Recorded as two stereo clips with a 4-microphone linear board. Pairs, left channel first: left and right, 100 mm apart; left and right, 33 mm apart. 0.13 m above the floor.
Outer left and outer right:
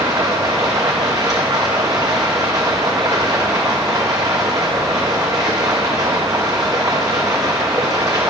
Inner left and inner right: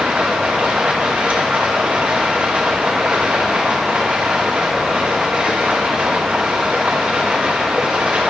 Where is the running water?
40° right (ahead or behind), 1.1 m.